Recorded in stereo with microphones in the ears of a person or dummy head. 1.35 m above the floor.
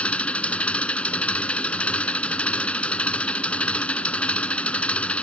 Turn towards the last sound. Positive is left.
turn(degrees=10)  # may be behind; listen again after turning